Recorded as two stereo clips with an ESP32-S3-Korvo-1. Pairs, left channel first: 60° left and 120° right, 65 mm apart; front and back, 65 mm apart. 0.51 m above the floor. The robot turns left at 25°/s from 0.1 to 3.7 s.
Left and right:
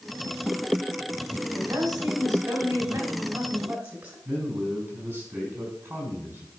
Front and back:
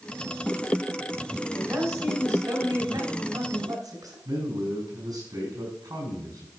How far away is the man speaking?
About 5 m.